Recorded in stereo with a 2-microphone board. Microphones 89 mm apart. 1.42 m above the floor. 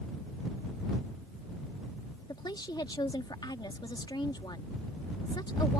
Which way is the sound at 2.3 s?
55° left (ahead or behind).